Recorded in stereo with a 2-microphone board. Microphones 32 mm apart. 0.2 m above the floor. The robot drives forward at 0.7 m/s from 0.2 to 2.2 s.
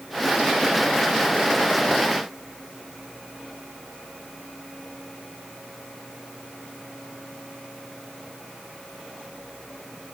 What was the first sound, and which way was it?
Only background noise.